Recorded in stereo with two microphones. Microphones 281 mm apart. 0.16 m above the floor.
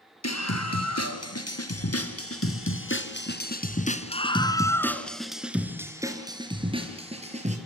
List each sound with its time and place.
0.2 s a scream: 65° left (ahead or behind), 4 m; by 7.6 s 25° right (ahead or behind), 4 m